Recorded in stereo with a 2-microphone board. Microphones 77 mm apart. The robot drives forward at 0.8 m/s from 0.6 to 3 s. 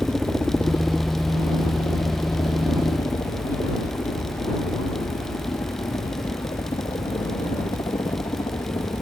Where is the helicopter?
10° left (ahead or behind); by 9.0 s 70° left (ahead or behind).